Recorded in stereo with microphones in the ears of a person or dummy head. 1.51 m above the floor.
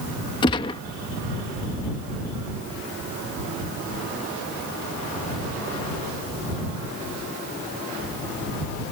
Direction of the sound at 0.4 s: 25° left (ahead or behind).